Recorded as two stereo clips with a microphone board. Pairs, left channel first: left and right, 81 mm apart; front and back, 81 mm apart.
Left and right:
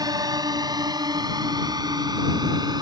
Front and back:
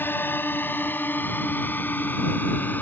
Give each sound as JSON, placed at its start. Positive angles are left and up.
{"t": 0.0, "sound": "a drone", "azimuth_deg": -60}